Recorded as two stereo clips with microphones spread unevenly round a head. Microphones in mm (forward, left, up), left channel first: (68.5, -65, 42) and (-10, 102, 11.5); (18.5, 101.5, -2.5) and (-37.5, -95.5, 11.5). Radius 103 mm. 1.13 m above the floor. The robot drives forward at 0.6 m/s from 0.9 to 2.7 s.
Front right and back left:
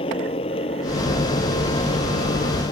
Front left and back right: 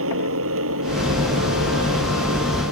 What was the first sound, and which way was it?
A motorcycle, 130° right.